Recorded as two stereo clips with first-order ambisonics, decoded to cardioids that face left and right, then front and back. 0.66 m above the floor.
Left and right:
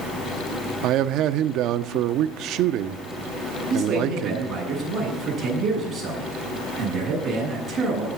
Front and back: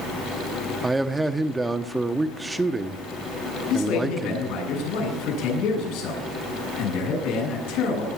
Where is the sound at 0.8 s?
100° right, 0.7 m.